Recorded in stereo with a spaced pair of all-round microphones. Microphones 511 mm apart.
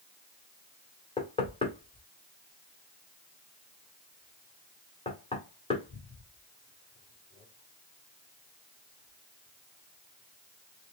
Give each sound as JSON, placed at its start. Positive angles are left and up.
{"t": 1.2, "sound": "knocking", "side_deg": 10, "distance_m": 1.7}